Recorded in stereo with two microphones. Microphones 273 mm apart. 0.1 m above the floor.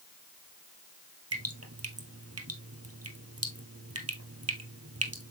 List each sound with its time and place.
1.3 s dripping: 60° right (ahead or behind), 1.5 m